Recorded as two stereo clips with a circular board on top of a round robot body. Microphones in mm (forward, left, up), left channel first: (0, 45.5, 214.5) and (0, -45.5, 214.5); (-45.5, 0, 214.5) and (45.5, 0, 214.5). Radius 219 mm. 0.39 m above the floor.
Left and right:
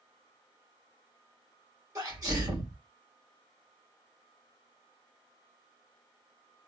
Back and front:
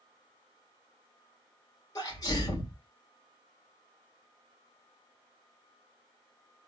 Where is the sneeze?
135° right, 2.5 m.